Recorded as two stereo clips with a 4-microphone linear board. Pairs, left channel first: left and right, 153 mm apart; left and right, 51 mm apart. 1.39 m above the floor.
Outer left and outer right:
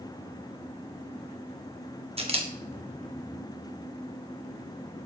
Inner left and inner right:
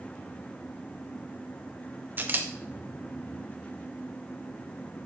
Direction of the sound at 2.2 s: 40° right (ahead or behind).